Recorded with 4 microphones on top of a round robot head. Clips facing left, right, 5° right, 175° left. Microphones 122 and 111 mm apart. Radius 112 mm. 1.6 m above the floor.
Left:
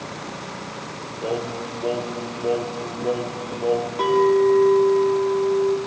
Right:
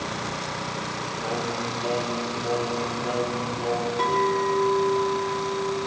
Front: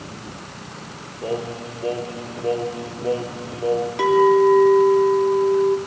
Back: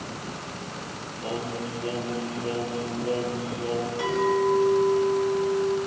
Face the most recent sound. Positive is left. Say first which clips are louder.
# left 8 dB, front 10 dB
turn(degrees=15)